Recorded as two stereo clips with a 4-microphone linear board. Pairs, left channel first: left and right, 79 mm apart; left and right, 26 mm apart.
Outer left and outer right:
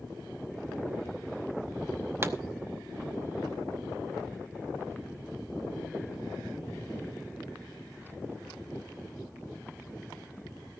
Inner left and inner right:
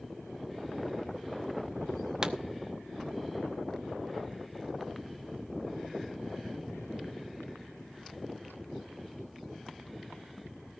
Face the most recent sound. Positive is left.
turn(degrees=-30)  # may be behind; listen again after turning